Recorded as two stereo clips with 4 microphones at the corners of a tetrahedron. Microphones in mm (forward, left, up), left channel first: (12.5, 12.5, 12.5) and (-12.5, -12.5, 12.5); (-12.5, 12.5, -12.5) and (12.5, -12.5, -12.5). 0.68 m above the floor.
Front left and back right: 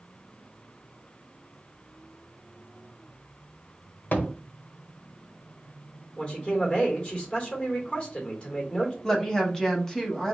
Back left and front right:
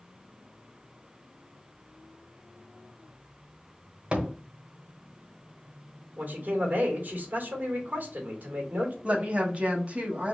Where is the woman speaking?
25° right, 1.1 m.